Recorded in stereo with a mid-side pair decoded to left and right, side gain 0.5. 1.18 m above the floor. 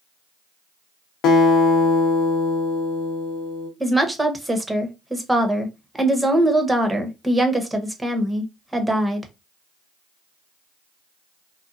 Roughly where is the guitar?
Left.